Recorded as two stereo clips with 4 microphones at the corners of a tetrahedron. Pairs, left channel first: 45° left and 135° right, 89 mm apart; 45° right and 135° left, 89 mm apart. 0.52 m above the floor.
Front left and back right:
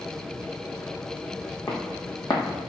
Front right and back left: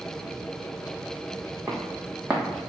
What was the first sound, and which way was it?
Footsteps, 80° left.